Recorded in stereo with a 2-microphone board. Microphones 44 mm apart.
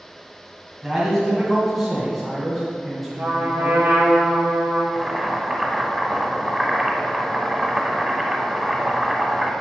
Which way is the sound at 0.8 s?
5° left (ahead or behind).